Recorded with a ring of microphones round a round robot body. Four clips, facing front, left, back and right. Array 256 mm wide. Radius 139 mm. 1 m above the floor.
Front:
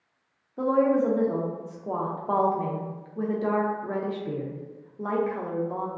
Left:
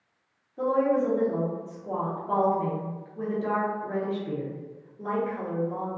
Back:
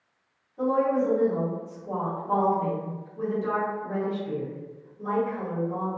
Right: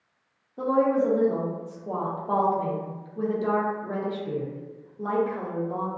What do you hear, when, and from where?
0.6 s a woman speaking: 15° right, 0.7 m